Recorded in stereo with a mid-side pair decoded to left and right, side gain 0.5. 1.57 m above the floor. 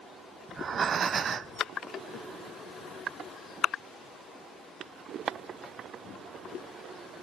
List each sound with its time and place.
0.5 s breathing: 45° right, 0.6 m